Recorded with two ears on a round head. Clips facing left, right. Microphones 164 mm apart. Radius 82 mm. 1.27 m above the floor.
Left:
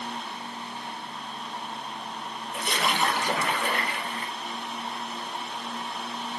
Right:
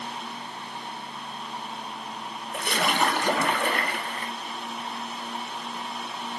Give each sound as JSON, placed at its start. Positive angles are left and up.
{"t": 2.5, "sound": "a splash", "side_deg": -45, "distance_m": 0.6}